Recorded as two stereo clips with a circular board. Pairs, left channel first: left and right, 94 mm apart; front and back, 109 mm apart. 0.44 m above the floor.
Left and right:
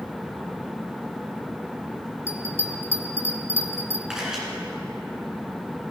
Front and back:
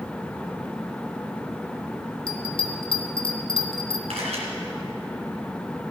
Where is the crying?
I don't hear crying.